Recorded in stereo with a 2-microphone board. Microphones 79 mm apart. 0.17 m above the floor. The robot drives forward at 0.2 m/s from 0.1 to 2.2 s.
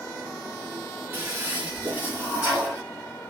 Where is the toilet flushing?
25° right (ahead or behind), 1.8 m.